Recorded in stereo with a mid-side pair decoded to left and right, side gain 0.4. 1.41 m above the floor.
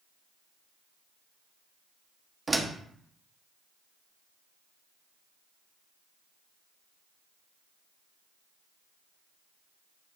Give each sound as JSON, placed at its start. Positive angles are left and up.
{"t": 2.5, "sound": "a door slam", "azimuth_deg": -15, "distance_m": 1.3}